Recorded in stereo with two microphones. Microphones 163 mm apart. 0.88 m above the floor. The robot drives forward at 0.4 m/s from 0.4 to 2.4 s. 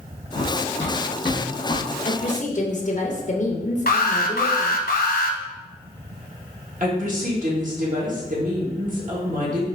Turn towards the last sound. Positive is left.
turn(degrees=-55)  # may be behind; listen again after turning